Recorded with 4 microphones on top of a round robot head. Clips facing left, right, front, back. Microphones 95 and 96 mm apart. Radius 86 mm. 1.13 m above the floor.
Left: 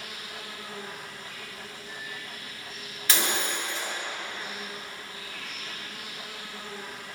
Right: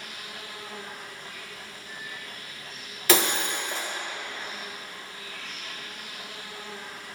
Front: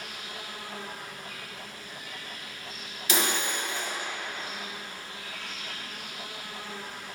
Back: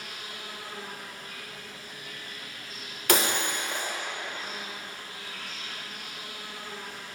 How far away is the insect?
About 3.5 m.